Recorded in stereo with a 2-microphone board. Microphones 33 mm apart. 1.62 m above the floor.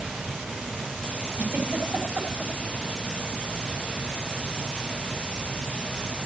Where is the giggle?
45° right (ahead or behind), 3.5 m.